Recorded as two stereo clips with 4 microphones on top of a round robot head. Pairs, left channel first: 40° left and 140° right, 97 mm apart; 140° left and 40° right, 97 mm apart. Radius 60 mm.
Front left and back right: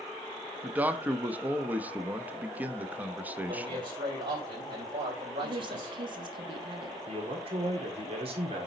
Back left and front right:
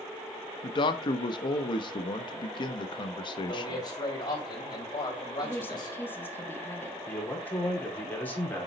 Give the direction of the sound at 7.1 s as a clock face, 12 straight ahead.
5 o'clock.